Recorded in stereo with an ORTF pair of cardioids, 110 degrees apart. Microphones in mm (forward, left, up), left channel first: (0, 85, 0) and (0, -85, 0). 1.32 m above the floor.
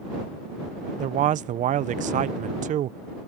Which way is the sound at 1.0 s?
50° right.